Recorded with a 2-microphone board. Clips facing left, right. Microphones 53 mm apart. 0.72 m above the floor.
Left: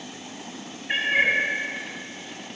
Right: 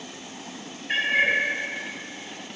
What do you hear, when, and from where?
0.9 s a cat meowing: 10° left (ahead or behind), 0.6 m